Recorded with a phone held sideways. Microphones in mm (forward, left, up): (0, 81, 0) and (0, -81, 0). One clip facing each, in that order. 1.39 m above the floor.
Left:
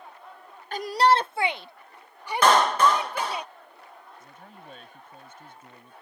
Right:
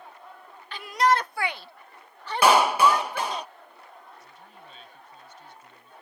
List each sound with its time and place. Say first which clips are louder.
0.7 s a shout: left 2 dB; 45° left (ahead or behind); by 3.4 s 10° left (ahead or behind)
2.4 s a clap: right 1 dB; 10° right (ahead or behind)
4.2 s a man speaking: left 2 dB; 50° left (ahead or behind)